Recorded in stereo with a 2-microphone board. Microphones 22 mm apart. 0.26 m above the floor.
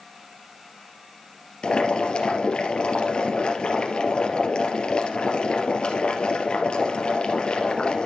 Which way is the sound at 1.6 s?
45° left (ahead or behind).